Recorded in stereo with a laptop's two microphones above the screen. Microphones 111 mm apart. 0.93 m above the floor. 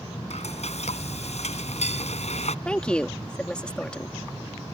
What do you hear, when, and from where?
0.3 s frying: 75° left (ahead or behind)
2.6 s a woman speaking: 10° left (ahead or behind)